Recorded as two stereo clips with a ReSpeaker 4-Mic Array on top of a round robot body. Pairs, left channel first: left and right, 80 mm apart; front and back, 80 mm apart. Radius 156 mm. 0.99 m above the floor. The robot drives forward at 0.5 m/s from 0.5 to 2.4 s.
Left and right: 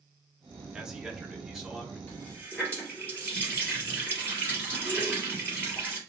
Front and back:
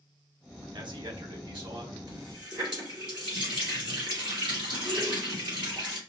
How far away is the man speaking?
About 1.0 m.